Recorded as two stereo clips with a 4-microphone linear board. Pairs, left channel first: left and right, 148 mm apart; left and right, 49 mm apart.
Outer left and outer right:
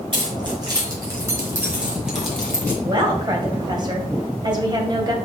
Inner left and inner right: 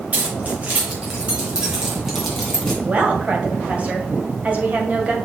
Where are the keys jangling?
35° right (ahead or behind), 3.5 m; by 2.7 s 10° left (ahead or behind), 2.5 m.